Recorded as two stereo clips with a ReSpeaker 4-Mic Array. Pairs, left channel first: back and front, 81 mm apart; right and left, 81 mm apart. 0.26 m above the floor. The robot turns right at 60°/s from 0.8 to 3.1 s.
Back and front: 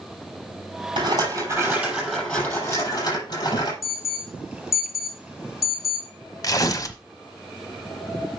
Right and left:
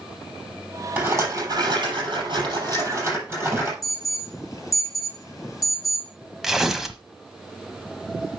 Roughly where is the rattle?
Ahead left.